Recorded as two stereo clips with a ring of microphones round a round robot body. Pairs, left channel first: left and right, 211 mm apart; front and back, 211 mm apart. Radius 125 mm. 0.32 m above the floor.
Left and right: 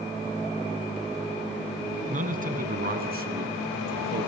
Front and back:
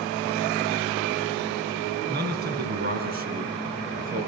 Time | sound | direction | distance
2.1 | a man speaking | 140° right | 3.5 m